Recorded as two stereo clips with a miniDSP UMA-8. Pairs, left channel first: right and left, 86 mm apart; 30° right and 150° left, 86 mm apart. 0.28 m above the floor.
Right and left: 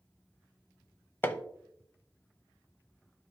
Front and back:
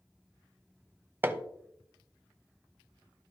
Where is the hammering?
150° right, 0.6 m.